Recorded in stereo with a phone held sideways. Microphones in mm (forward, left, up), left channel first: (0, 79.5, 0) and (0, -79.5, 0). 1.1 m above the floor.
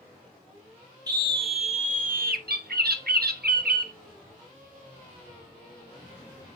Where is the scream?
25° right (ahead or behind), 1.9 m; by 2.4 s 70° right (ahead or behind), 1.6 m.